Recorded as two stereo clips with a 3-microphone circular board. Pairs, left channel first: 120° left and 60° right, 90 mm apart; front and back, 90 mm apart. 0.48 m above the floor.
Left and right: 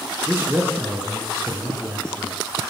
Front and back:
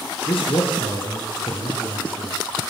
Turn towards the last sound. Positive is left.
turn(degrees=-5)